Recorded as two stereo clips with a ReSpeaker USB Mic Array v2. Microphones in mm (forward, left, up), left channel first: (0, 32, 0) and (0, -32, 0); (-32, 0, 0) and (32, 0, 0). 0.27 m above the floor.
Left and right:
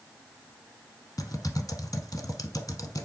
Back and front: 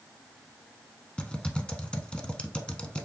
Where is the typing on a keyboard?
105° left, 0.7 m.